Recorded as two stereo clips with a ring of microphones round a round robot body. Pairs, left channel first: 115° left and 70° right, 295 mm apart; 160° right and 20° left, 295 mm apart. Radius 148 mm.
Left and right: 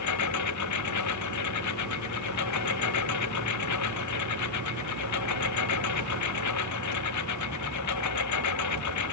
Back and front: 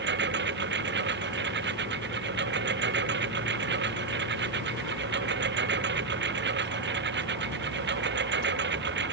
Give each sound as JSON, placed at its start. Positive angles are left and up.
{"t": 0.0, "sound": "a lawn mower", "azimuth_deg": 80}